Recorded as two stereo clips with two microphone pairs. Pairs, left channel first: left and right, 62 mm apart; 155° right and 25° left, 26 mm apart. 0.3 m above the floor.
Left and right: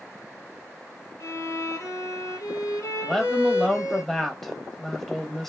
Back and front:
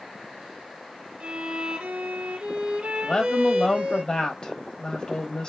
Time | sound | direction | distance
1.2 | a violin | 55° left | 1.3 m
3.0 | a woman speaking | 175° left | 1.1 m